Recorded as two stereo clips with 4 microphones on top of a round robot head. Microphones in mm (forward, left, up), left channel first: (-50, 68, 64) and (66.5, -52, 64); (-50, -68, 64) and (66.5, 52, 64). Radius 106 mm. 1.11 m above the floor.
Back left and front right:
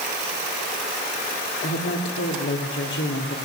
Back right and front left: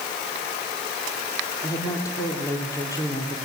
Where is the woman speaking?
155° left, 3.5 m.